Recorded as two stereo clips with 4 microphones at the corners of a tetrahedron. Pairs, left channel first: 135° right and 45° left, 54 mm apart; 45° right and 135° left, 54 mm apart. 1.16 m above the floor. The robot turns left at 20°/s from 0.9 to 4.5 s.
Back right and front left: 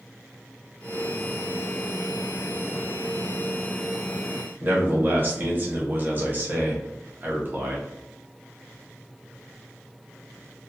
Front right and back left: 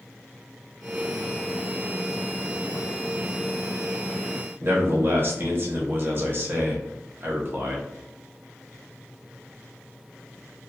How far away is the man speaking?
About 0.9 m.